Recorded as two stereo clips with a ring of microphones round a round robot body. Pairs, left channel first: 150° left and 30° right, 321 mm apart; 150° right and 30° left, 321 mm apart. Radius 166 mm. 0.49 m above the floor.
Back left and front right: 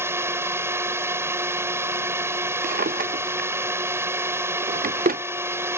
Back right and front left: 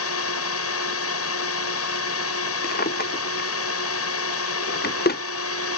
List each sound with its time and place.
0.0 s a drone: 110° right
2.6 s a drawer: 90° right